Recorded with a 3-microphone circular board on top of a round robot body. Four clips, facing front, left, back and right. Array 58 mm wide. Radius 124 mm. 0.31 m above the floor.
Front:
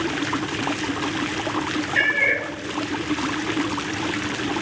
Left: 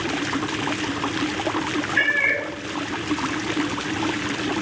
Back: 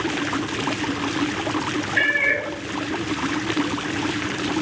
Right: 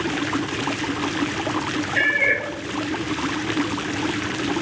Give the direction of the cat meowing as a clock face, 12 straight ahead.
1 o'clock.